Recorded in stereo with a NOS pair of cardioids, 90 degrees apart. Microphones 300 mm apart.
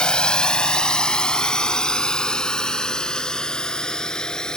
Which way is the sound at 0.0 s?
5° left.